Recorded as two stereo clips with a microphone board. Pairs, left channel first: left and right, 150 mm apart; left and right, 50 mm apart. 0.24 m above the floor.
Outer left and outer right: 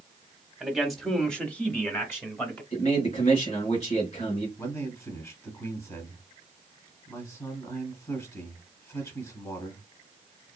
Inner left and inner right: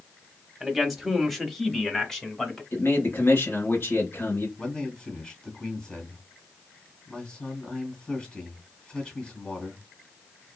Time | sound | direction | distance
0.6 | a man speaking | 5° right (ahead or behind) | 1.0 m
2.7 | a man speaking | 50° left (ahead or behind) | 1.7 m
4.6 | a man speaking | 20° left (ahead or behind) | 1.6 m